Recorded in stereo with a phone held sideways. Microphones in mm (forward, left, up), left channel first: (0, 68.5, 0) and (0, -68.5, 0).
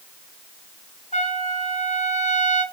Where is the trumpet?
60° left (ahead or behind), 2.5 m.